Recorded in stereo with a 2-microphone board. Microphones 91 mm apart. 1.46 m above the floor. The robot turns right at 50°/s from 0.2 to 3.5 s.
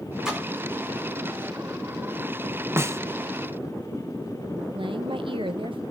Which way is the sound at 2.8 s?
25° right (ahead or behind).